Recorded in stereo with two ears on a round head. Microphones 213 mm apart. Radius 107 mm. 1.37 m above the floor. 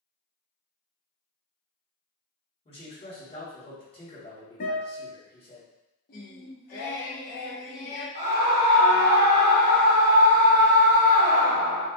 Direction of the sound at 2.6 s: 25° left (ahead or behind).